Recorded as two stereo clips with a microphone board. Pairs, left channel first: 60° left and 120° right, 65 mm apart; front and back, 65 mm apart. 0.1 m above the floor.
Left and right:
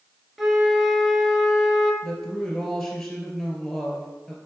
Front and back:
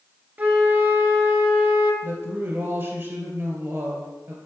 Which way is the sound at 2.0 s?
145° left.